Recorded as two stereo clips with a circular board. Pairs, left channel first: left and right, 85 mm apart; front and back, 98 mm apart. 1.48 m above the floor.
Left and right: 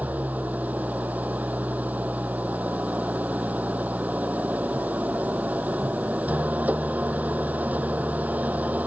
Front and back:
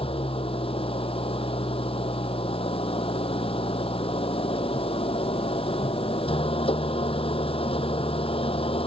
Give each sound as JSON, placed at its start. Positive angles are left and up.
{"t": 0.0, "sound": "an engine running", "azimuth_deg": -20}